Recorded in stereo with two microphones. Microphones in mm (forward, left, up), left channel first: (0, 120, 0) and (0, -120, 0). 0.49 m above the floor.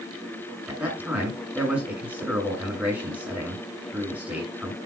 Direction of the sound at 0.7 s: 5° right (ahead or behind).